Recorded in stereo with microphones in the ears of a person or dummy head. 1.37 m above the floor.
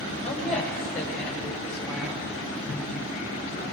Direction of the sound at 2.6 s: 10° left (ahead or behind).